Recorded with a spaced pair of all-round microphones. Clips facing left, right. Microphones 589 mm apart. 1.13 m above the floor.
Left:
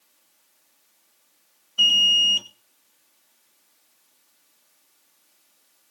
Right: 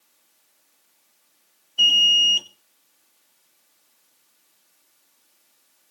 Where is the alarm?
35° left (ahead or behind), 0.9 m.